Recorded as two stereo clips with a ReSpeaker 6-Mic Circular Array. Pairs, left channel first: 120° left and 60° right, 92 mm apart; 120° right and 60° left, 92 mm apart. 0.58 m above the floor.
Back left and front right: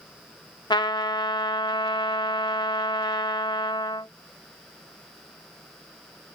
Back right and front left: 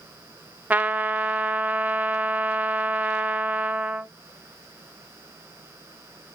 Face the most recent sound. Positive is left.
turn(degrees=130)